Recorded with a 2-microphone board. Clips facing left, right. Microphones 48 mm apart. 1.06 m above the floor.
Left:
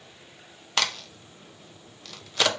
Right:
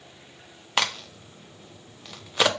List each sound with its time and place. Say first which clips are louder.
0.8 s a crack: right 2 dB; 20° right (ahead or behind), 0.8 m